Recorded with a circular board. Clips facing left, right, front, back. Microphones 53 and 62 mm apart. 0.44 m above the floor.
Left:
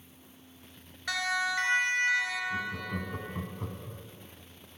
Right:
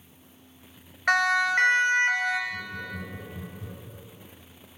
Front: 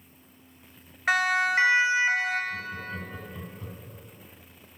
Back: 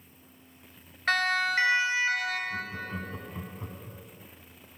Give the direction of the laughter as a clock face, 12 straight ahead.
8 o'clock.